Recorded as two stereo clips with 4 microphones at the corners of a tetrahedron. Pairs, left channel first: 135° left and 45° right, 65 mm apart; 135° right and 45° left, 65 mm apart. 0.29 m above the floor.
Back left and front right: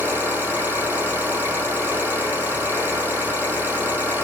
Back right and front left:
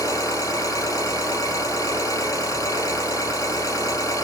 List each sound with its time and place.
0.0 s an engine running: 110° right, 6 m